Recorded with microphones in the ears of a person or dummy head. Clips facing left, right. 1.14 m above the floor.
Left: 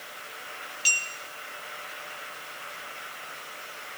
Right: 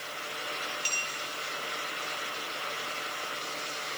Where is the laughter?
I don't hear laughter.